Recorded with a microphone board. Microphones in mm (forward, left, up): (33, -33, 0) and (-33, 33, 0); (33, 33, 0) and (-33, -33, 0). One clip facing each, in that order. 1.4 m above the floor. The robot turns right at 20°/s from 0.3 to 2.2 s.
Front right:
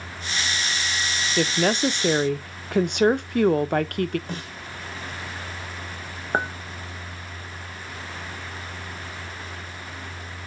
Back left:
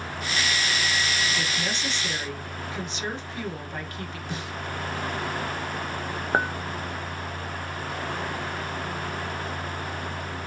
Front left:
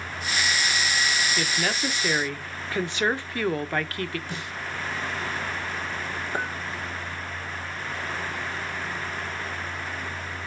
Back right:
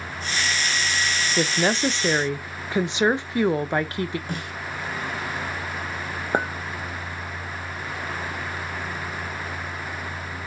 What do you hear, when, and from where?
1.4 s a woman speaking: 80° right, 0.8 m; by 4.2 s 65° right, 0.8 m
4.3 s a snare drum: 95° right, 3 m
6.3 s a clink: 140° right, 0.9 m